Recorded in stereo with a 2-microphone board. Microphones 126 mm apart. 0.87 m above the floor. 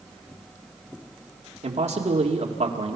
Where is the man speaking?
65° right (ahead or behind), 2 m.